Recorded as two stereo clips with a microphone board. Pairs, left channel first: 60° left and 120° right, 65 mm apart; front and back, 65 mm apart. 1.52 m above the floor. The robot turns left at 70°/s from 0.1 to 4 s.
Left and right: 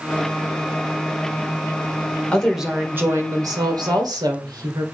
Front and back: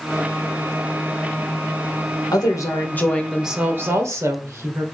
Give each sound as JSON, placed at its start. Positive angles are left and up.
{"t": 2.3, "sound": "a woman speaking", "azimuth_deg": -20, "distance_m": 1.8}